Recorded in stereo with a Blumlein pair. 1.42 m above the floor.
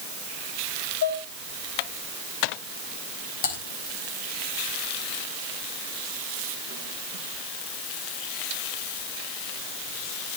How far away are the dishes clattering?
About 5 m.